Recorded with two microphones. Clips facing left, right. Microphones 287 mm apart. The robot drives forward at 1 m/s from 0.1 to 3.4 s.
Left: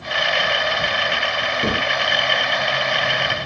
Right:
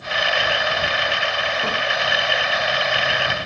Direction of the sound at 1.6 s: 40° left (ahead or behind).